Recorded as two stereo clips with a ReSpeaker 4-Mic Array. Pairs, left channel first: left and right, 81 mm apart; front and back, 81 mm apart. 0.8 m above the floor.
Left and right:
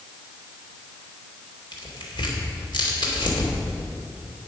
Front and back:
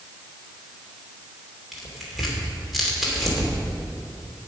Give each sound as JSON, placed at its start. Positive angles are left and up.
{"t": 1.7, "sound": "tearing paper", "azimuth_deg": 90, "distance_m": 2.5}